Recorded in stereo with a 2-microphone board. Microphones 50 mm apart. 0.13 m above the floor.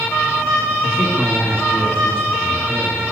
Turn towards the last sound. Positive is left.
turn(degrees=20)  # may be behind; listen again after turning